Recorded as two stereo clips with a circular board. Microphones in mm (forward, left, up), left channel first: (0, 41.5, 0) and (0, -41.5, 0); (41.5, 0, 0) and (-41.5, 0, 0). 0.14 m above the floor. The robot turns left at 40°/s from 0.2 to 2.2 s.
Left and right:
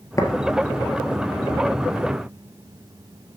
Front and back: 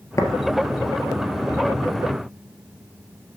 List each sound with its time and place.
0.2 s tapping: 45° left, 1.3 m; by 0.3 s 40° left, 1.3 m